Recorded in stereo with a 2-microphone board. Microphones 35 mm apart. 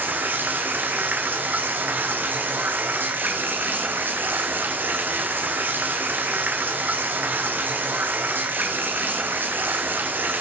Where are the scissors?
I don't hear scissors.